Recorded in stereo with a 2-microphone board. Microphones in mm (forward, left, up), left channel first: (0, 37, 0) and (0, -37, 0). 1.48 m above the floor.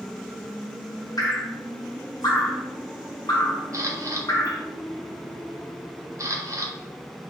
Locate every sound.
1.2 s dripping: 55° left (ahead or behind), 1.2 m
3.7 s a camera shutter: 45° right (ahead or behind), 0.6 m